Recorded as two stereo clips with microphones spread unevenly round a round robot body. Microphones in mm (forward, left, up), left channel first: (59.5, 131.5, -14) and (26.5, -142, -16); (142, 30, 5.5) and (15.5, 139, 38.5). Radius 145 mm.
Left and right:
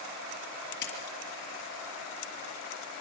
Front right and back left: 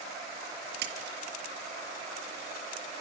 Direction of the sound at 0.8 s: 140° left.